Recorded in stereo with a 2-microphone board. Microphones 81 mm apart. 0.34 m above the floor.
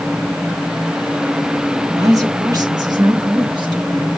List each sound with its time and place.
1.9 s a woman speaking: 45° right (ahead or behind), 1.5 m; by 4.2 s 70° right (ahead or behind), 2.5 m